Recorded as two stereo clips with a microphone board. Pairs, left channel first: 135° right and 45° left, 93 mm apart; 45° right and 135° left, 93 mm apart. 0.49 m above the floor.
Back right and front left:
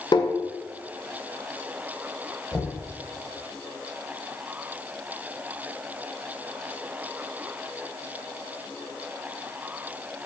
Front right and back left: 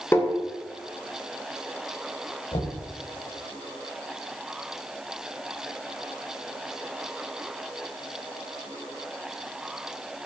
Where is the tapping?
105° right, 2 m.